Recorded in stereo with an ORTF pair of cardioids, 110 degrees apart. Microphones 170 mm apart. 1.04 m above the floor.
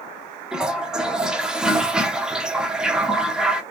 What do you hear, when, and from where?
0.5 s a toilet flushing: 5° right, 0.6 m